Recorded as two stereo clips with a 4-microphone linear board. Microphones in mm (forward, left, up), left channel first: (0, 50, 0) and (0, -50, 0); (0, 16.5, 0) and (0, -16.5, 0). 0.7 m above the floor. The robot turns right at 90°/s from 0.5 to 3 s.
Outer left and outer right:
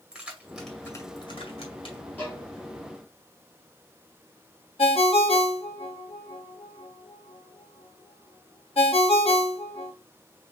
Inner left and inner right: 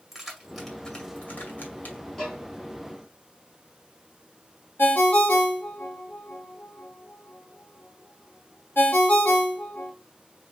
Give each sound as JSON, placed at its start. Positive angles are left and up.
{"t": 0.1, "sound": "keys jangling", "side_deg": -5, "distance_m": 1.9}
{"t": 2.2, "sound": "a violin", "side_deg": 15, "distance_m": 3.5}
{"t": 4.8, "sound": "a ringtone", "side_deg": 85, "distance_m": 0.8}